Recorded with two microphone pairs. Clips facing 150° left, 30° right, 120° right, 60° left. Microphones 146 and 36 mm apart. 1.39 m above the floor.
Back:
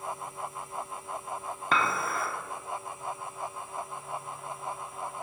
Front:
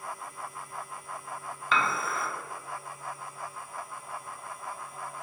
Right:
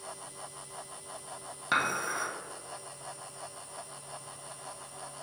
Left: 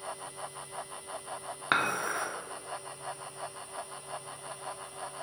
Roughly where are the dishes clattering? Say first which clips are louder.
Even, left 1 dB; behind left.